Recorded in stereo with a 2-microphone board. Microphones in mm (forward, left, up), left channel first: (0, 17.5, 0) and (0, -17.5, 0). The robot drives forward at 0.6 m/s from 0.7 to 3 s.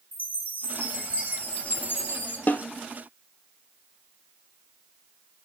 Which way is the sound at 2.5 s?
55° left (ahead or behind).